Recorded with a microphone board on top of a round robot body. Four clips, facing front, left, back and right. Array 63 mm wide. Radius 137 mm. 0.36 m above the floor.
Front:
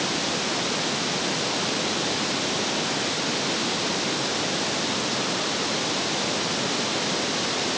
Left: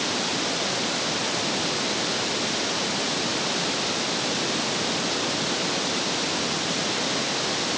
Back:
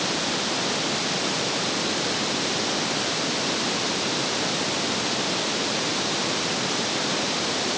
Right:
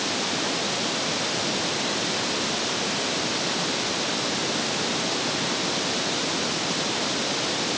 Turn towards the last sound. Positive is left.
No sound to turn to.